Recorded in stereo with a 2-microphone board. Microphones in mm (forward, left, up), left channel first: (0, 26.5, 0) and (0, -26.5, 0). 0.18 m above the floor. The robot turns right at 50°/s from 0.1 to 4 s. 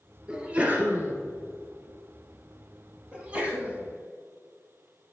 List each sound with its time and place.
0.3 s a sneeze: 170° right, 2 m; by 1.1 s 125° right, 2 m
3.1 s a sneeze: 145° right, 1.2 m; by 3.8 s 110° right, 1.2 m